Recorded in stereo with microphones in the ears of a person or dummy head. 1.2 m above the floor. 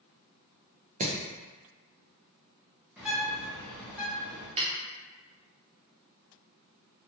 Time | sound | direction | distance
1.0 | hammering | 35° right (ahead or behind) | 0.5 m
3.0 | a bird | 5° right (ahead or behind) | 0.9 m
4.6 | a snare drum | 30° right (ahead or behind) | 0.5 m